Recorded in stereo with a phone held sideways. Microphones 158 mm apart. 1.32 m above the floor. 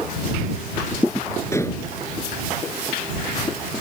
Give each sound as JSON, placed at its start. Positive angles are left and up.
{"t": 1.5, "sound": "dishes clattering", "side_deg": 15}